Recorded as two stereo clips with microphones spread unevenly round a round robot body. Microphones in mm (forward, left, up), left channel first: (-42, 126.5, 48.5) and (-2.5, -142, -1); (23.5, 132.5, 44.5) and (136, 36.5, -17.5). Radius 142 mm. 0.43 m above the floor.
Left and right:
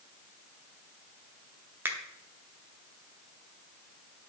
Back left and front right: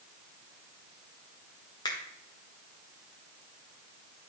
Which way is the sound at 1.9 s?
135° right.